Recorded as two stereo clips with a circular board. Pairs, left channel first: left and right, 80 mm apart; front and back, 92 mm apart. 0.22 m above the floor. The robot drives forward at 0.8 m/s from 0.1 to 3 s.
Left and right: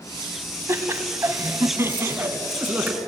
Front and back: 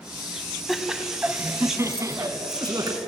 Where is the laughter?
90° right, 1.6 m; by 3.0 s 155° right, 2.5 m.